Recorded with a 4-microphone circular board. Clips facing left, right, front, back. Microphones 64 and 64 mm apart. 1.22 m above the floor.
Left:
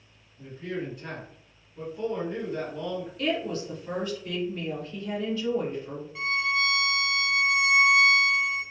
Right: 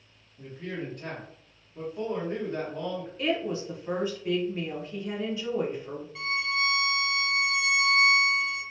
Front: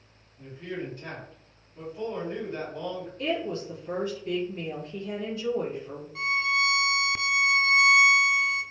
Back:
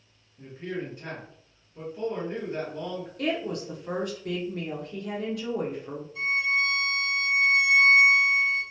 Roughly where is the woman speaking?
Behind.